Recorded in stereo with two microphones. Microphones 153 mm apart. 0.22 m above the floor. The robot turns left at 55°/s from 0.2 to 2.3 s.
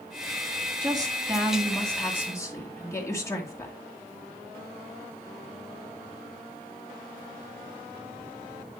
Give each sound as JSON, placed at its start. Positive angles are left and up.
{"t": 0.8, "sound": "a woman speaking", "azimuth_deg": -130, "distance_m": 2.0}